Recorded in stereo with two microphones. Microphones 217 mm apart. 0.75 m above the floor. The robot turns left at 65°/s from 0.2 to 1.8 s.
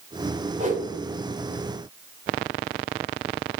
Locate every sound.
0.6 s a whoosh: 30° right (ahead or behind), 2.5 m; by 0.9 s 50° right (ahead or behind), 2.5 m